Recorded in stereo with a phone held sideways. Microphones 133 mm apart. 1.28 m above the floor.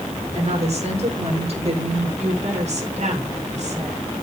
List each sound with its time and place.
0.3 s a woman speaking: 55° right (ahead or behind), 6 m; by 2.1 s 50° right (ahead or behind), 5.5 m
2.2 s a woman speaking: 60° right (ahead or behind), 5.5 m